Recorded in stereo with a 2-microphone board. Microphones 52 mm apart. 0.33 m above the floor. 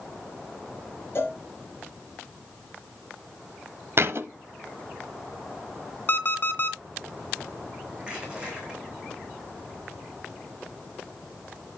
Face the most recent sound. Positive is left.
turn(degrees=-15)  # may be behind; listen again after turning